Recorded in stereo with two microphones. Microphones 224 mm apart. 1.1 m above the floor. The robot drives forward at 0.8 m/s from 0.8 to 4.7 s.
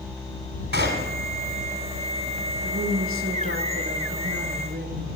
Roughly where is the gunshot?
Right.